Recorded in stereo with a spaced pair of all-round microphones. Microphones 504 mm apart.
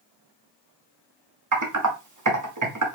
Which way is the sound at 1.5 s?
35° right (ahead or behind).